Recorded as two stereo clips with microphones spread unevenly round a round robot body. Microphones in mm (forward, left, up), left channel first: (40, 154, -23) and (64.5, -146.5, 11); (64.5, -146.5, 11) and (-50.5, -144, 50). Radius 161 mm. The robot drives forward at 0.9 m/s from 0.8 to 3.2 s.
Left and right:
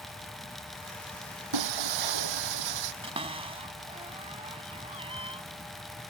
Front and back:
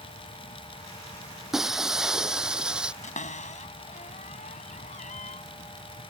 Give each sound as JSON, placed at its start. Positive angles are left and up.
{"t": 1.5, "sound": "breaking glass", "azimuth_deg": -95}
{"t": 3.0, "sound": "a cupboard door", "azimuth_deg": -15}